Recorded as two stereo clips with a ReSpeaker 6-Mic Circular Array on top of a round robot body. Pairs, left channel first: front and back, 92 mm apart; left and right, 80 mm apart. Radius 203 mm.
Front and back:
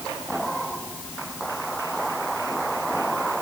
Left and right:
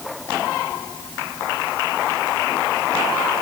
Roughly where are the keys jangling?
I don't hear keys jangling.